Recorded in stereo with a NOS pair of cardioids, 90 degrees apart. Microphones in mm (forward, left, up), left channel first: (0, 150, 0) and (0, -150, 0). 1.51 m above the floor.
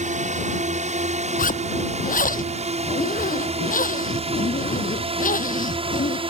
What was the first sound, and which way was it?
A drone, 25° right.